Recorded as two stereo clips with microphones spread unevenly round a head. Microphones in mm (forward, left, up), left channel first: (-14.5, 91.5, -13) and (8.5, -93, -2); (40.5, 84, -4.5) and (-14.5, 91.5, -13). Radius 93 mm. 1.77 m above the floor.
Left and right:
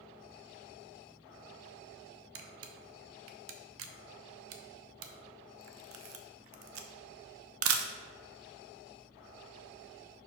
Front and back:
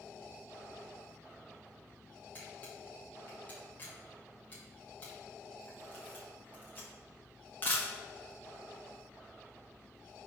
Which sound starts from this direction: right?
A camera shutter, at 2.4 s.